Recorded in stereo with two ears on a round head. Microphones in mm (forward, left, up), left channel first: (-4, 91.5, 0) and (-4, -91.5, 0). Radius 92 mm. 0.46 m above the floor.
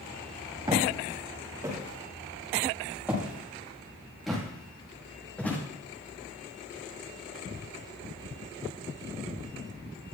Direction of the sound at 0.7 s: 20° right (ahead or behind).